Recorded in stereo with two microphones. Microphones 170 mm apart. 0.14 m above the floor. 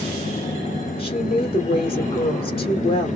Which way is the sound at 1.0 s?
35° left (ahead or behind).